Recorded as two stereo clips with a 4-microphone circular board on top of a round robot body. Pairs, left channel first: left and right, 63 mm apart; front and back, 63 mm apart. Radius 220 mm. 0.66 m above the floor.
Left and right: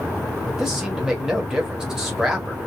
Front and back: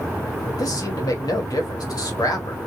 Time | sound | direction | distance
0.5 | a man speaking | 10° right | 1.8 m